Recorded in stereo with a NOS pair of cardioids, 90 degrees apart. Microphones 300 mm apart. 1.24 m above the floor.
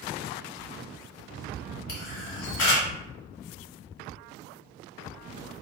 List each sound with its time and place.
1.9 s a camera shutter: 50° left, 1.5 m